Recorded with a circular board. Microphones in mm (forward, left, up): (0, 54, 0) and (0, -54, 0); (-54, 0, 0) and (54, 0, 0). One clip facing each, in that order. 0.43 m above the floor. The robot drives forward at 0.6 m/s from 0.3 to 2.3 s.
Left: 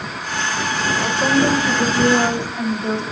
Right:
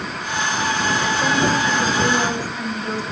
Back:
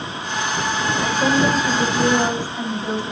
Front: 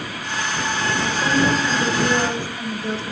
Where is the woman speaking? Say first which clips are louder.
Left 5 dB, back 2 dB; 150° left, 3.5 m; by 3.0 s 155° left, 4.5 m.